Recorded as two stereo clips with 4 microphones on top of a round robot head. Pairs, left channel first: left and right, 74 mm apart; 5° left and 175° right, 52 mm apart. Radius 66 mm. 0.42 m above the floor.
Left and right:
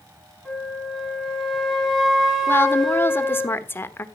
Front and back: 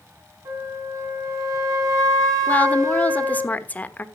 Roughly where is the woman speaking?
Ahead left.